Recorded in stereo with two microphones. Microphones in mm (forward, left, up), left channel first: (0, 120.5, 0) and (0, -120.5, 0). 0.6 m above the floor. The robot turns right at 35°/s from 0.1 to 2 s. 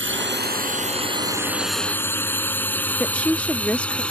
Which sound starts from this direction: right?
A drone, at 0.0 s.